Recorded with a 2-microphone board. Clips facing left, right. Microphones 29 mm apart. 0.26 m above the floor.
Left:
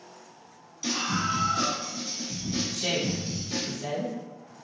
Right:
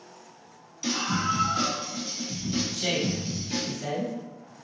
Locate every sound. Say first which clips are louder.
0.8 s a scream: right 1 dB; 10° right (ahead or behind), 1.2 m; by 3.7 s 30° right (ahead or behind), 1.5 m
2.7 s a woman speaking: even; 25° right (ahead or behind), 1.0 m